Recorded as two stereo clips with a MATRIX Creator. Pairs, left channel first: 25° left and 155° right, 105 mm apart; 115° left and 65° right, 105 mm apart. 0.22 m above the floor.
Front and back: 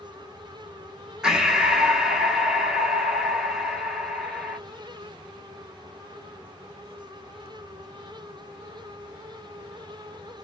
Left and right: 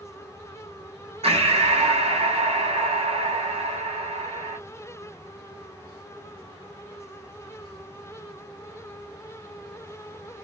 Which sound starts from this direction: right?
Breathing, at 1.2 s.